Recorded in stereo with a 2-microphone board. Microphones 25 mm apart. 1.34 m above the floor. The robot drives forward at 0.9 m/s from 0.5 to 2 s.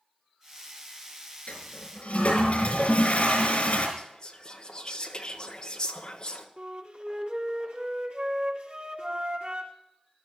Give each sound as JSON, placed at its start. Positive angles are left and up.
{"t": 1.5, "sound": "a toilet flushing", "side_deg": 65, "distance_m": 6.5}
{"t": 4.0, "sound": "whispering", "side_deg": 30, "distance_m": 3.0}
{"t": 6.6, "sound": "a flute", "side_deg": -60, "distance_m": 4.5}